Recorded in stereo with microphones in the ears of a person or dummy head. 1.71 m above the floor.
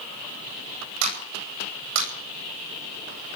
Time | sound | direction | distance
1.0 | a clap | 80° right | 9.5 m